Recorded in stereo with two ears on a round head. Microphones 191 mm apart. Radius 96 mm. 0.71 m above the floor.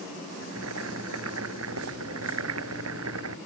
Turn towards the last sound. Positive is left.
turn(degrees=-70)  # may be behind; listen again after turning